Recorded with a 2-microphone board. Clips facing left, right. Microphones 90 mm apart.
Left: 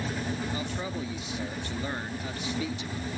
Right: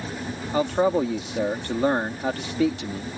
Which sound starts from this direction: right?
A man speaking, at 0.5 s.